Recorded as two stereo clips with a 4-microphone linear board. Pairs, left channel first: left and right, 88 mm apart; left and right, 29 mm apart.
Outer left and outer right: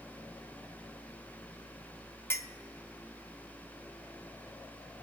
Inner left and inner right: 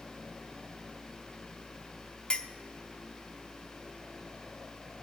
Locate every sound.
2.3 s a clink: 30° left (ahead or behind), 0.6 m